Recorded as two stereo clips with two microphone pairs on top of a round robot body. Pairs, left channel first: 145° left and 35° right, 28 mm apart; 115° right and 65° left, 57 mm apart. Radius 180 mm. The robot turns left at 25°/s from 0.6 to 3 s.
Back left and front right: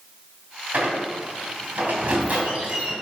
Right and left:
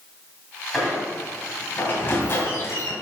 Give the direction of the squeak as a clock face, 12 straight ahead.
1 o'clock.